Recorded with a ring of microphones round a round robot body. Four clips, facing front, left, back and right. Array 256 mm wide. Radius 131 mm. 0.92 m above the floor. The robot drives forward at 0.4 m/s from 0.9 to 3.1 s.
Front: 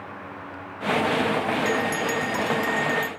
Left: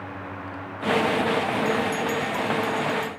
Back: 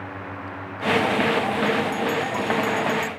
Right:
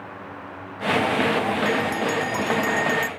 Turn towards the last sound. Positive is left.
turn(degrees=-60)